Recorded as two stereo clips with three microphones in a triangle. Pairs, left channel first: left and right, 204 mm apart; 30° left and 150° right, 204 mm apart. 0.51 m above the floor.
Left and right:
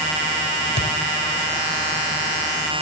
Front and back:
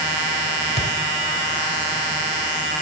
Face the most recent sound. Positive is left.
turn(degrees=60)